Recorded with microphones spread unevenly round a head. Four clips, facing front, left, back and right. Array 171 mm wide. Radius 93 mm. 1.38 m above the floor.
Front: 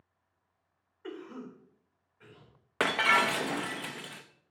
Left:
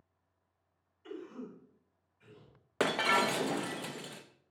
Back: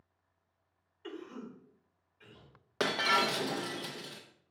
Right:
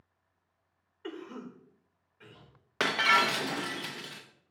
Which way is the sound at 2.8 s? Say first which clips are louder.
Right 2 dB, front 3 dB; 85° left.